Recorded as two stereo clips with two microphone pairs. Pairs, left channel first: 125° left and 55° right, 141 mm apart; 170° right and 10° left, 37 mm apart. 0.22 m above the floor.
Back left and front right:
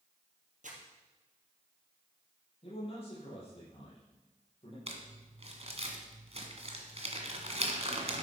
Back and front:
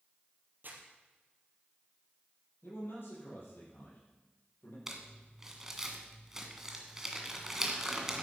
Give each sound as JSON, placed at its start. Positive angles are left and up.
{"t": 0.6, "sound": "crumpling", "azimuth_deg": -30, "distance_m": 3.5}
{"t": 2.6, "sound": "a man speaking", "azimuth_deg": 175, "distance_m": 6.5}
{"t": 4.9, "sound": "crumpling", "azimuth_deg": -70, "distance_m": 2.0}